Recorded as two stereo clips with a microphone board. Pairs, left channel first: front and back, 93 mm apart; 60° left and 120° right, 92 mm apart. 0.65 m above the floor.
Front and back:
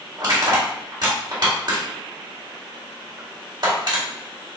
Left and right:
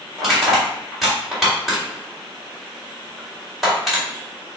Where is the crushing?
150° left, 2.0 m.